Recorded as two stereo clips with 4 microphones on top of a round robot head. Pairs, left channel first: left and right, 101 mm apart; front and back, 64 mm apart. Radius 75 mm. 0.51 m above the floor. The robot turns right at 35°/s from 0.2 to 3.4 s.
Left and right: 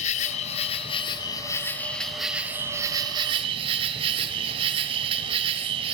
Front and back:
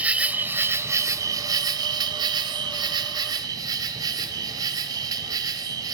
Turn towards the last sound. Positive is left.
turn(degrees=-135)